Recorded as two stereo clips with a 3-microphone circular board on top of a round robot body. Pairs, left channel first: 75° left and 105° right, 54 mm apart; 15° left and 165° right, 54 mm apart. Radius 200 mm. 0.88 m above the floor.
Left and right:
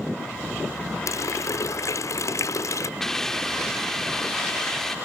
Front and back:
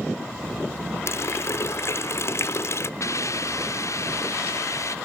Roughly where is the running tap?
Ahead left.